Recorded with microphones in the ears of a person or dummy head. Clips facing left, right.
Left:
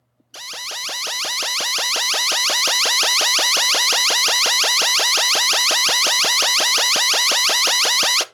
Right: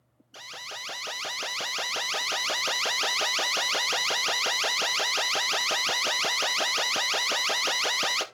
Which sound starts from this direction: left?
An alarm, at 0.3 s.